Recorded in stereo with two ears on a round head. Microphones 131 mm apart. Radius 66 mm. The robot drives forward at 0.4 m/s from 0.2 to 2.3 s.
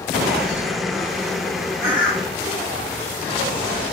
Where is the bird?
10° left (ahead or behind), 2 m; by 2.3 s 5° left (ahead or behind), 2 m.